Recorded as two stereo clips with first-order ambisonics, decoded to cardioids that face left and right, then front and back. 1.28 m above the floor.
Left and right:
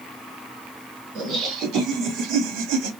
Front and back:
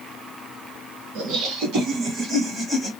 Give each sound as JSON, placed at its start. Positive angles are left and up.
{"t": 1.1, "sound": "laughter", "azimuth_deg": -145, "distance_m": 1.7}